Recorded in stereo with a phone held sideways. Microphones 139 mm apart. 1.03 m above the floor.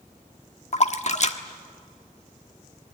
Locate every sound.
0.7 s a splash: 55° left (ahead or behind), 1.2 m